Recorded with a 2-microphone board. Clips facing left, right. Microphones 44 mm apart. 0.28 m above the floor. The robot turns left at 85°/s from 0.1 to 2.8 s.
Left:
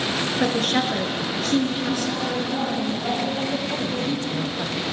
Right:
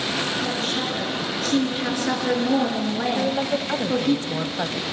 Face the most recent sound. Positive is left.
turn(degrees=-35)  # may be behind; listen again after turning